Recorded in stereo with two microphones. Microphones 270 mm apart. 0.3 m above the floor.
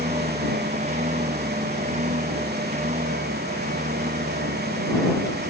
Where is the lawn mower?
25° right (ahead or behind).